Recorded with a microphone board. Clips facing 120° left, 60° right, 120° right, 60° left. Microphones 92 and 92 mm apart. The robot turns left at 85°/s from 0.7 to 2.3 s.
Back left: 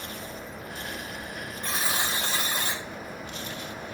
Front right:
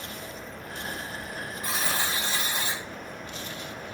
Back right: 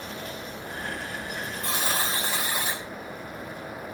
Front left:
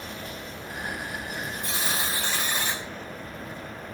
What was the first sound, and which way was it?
A buzzer, 140° right.